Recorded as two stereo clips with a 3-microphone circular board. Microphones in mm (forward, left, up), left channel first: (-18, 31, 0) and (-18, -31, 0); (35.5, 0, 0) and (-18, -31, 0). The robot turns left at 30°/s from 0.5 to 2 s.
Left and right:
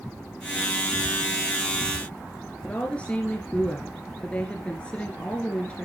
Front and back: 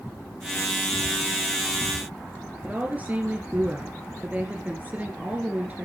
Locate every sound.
2.6 s a woman speaking: 155° left, 1.8 m